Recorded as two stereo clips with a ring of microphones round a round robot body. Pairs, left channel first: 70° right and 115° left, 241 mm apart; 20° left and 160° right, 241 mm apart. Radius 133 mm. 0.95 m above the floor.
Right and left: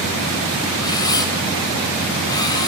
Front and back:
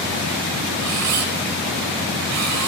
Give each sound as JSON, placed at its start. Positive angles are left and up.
{"t": 0.8, "sound": "a camera shutter", "azimuth_deg": -145, "distance_m": 4.5}